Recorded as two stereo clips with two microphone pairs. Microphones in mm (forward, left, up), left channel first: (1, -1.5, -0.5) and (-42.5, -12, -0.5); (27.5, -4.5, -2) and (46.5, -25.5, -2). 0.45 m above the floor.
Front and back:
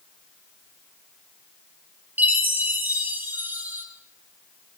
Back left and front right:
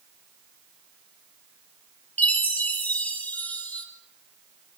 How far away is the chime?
About 2.5 m.